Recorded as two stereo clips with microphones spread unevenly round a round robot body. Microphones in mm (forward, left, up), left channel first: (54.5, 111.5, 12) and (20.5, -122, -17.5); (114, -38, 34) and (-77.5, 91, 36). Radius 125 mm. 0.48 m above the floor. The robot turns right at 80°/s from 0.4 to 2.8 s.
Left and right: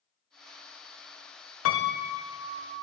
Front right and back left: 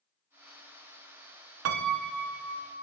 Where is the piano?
120° left, 0.5 m; by 2.8 s 145° right, 0.5 m.